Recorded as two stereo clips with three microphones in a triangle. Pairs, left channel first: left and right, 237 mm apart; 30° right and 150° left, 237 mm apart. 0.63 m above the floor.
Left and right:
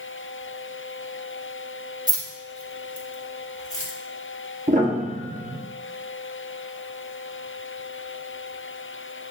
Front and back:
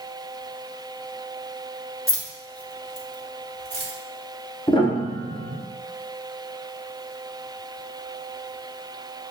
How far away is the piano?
About 0.8 m.